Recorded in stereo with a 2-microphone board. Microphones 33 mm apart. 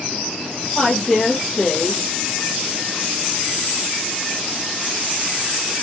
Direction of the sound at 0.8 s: 10° left (ahead or behind).